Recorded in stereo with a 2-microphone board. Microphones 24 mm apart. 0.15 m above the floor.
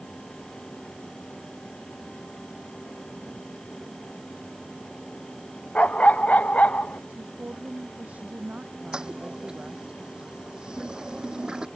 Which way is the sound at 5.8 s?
80° left.